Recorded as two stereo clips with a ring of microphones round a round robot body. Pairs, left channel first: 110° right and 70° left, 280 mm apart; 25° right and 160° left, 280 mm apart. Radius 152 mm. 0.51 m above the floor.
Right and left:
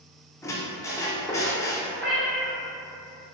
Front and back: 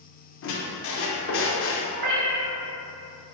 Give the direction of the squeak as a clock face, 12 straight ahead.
1 o'clock.